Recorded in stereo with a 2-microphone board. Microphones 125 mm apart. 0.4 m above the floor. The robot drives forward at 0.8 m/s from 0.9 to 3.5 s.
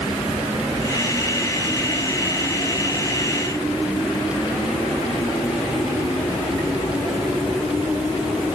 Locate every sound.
Only background noise.